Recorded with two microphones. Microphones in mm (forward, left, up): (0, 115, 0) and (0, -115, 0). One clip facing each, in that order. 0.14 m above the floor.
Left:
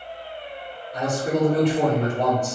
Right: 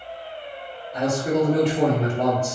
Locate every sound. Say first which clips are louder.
0.9 s a man speaking: right 2 dB; 10° right (ahead or behind), 1.8 m